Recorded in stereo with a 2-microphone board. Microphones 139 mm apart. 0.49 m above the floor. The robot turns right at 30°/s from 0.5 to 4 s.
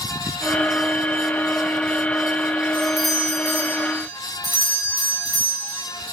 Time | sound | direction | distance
2.7 | a doorbell | 170° left | 4.5 m